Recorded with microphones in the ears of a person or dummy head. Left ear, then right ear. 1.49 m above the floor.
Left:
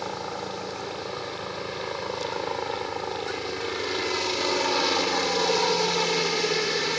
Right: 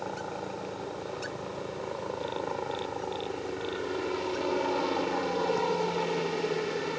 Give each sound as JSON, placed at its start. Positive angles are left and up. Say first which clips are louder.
{"t": 0.0, "sound": "a helicopter", "louder": "left 4 dB", "side_deg": 70}